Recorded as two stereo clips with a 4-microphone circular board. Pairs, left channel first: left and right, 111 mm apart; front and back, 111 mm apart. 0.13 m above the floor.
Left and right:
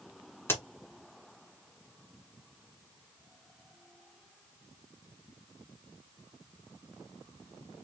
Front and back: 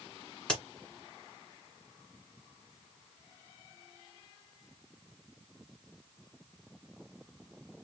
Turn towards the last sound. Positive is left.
turn(degrees=70)